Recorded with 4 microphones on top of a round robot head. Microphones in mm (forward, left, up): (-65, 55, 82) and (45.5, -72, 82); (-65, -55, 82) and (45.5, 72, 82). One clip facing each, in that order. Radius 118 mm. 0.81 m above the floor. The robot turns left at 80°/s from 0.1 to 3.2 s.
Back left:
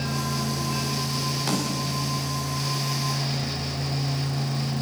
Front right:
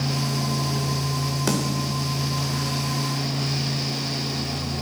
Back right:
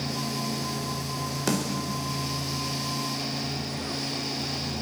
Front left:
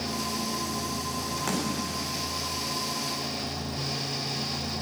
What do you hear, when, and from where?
1.5 s a snare drum: 85° right, 4.5 m; by 2.0 s 125° right, 4.5 m